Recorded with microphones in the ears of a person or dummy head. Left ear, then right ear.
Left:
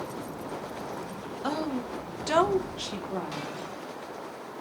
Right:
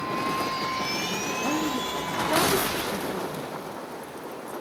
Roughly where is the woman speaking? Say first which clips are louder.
Even; left.